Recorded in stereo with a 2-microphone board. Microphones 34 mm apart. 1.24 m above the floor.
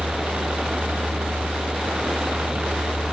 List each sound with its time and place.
0.0 s a helicopter: 65° right (ahead or behind); by 3.1 s 70° right (ahead or behind)